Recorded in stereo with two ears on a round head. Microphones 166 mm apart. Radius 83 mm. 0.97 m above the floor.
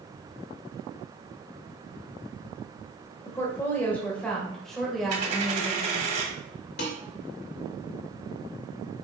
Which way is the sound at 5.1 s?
40° right (ahead or behind).